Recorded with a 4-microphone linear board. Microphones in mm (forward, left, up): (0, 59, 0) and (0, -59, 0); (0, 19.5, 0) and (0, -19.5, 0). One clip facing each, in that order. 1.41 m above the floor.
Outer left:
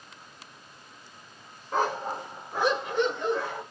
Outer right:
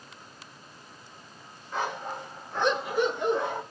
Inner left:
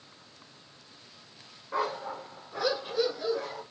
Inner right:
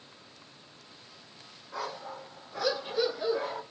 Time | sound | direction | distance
1.7 | a dog barking | 45° left (ahead or behind) | 1.4 m